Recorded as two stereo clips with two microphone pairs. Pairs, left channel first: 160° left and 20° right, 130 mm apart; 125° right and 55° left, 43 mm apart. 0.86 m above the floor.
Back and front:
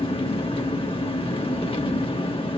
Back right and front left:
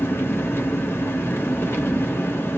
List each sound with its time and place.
0.0 s an engine running: 155° right, 1.0 m